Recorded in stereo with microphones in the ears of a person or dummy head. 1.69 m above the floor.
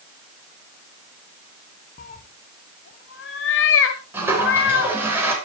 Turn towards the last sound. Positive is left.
turn(degrees=-15)  # may be behind; listen again after turning